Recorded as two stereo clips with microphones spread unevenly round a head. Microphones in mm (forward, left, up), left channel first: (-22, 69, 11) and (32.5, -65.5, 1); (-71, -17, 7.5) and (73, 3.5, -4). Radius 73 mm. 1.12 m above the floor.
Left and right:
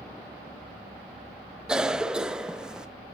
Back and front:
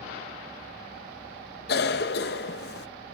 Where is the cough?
155° right, 0.8 m.